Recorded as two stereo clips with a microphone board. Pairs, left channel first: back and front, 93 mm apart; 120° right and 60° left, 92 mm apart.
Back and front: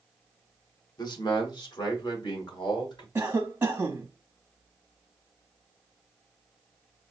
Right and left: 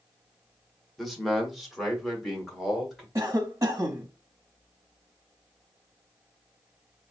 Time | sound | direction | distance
1.0 | a man speaking | 150° left | 1.2 m
3.1 | a cough | 50° left | 0.8 m